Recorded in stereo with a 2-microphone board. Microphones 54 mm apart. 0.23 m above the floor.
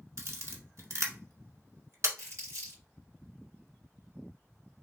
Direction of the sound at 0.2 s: 65° right (ahead or behind).